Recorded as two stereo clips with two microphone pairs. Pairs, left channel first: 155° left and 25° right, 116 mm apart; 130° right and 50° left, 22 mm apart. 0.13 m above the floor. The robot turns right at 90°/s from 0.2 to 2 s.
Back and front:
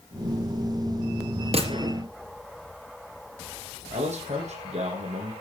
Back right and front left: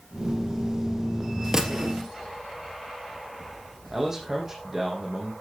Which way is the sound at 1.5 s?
15° right.